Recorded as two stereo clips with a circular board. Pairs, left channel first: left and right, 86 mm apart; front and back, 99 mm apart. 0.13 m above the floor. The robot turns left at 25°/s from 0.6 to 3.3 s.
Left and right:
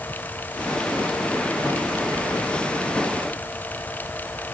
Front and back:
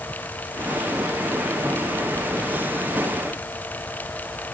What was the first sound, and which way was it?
Only background noise.